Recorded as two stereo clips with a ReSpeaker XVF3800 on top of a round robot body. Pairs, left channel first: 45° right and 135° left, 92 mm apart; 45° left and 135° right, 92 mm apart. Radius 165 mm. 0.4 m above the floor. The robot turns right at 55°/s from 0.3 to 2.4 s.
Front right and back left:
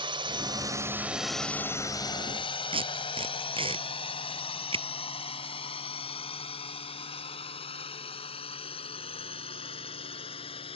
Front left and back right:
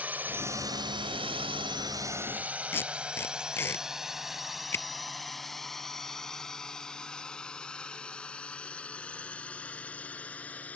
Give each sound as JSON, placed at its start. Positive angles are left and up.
{"t": 0.0, "sound": "a drone", "azimuth_deg": 150}
{"t": 2.7, "sound": "tape being pulled", "azimuth_deg": 110}